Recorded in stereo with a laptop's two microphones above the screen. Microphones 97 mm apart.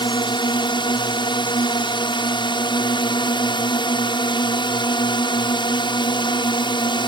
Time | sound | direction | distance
0.0 | a drone | 55° left (ahead or behind) | ?